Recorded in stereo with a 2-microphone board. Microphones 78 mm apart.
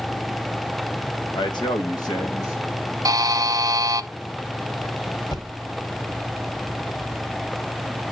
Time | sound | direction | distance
1.3 | a man speaking | 85° left | 1.2 m
3.0 | a buzzer | 55° right (ahead or behind) | 0.6 m
5.3 | a thud | 65° left (ahead or behind) | 2 m